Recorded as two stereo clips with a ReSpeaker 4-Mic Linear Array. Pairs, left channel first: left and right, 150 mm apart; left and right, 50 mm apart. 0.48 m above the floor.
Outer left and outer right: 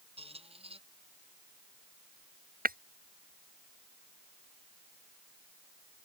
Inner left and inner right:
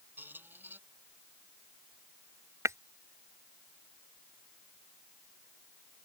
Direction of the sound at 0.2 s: 40° right (ahead or behind).